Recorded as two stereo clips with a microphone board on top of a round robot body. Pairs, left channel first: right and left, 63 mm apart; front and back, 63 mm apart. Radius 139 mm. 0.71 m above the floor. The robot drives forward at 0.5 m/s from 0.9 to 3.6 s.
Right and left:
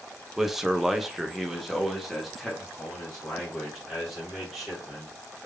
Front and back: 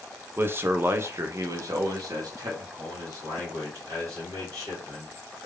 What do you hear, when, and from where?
0.4 s a man speaking: 170° left, 0.6 m; by 5.5 s straight behind, 1.7 m